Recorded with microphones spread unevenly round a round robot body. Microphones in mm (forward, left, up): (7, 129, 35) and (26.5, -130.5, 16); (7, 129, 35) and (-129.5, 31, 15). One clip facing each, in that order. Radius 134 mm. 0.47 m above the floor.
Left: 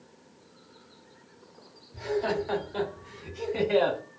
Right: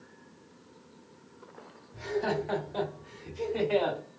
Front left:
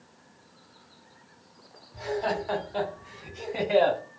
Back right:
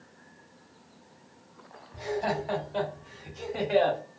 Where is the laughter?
170° right, 1.5 m; by 4.0 s 85° left, 1.7 m.